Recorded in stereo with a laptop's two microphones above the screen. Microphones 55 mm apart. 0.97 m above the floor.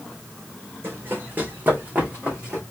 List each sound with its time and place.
0.8 s running footsteps: 45° right (ahead or behind), 2 m; by 2.6 s 15° right (ahead or behind), 2.5 m